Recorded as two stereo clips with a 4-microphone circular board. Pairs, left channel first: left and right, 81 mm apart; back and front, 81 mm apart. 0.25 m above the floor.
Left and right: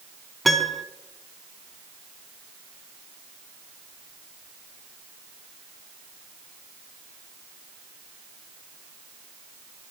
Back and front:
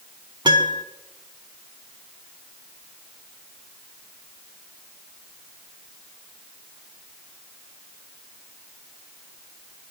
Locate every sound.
0.5 s a piano: straight ahead, 0.5 m